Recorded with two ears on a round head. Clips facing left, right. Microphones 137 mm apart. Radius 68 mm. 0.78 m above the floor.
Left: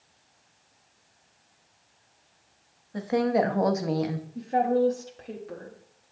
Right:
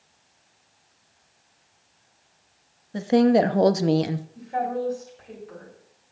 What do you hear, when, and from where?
2.9 s a woman speaking: 30° right (ahead or behind), 0.8 m
4.3 s a woman speaking: 45° left (ahead or behind), 1.5 m